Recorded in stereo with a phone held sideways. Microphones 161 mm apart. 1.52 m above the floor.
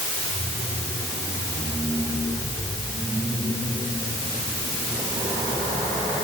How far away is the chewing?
No chewing in this recording.